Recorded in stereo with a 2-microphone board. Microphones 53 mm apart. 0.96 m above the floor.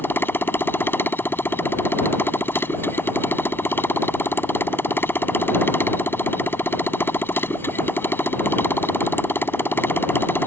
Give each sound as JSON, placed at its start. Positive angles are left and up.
{"t": 0.0, "sound": "a motorcycle", "side_deg": 45}